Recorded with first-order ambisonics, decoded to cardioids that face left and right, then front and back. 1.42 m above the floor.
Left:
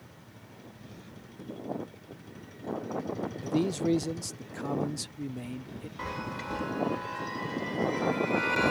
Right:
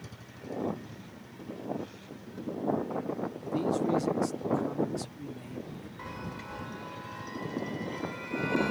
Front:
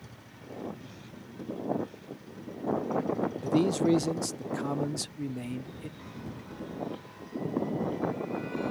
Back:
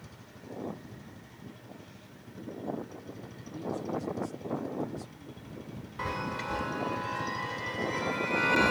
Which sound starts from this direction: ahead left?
A man speaking, at 3.4 s.